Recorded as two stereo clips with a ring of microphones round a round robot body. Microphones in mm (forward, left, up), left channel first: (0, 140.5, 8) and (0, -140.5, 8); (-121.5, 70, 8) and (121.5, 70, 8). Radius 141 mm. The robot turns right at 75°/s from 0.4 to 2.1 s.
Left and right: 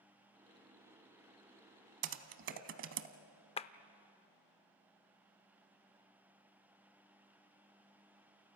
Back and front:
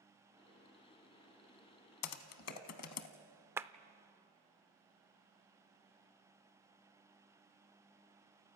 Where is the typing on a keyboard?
145° right, 0.9 m; by 3.1 s 140° right, 0.9 m.